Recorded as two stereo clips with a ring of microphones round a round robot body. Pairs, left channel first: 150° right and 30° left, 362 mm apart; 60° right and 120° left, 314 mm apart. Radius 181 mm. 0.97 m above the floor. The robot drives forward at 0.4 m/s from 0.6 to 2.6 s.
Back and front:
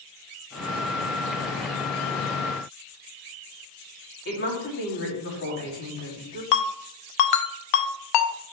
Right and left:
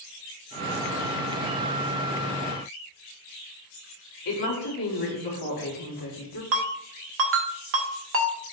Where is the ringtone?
Straight behind, 0.7 m.